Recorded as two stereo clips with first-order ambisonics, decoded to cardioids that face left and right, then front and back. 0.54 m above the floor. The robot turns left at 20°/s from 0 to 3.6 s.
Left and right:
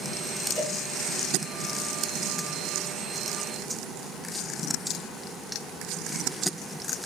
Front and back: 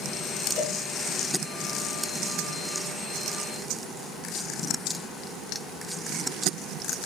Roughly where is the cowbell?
Ahead left.